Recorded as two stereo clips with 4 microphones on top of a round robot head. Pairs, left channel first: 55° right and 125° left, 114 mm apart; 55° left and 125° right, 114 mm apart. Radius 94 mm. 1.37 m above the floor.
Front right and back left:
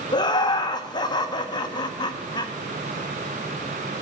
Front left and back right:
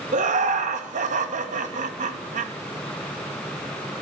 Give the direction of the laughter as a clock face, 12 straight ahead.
4 o'clock.